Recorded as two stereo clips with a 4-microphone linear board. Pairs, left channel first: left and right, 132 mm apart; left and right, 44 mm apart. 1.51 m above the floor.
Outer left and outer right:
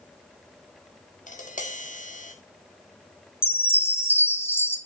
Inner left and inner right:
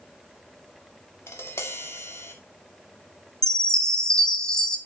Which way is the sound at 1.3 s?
70° left (ahead or behind).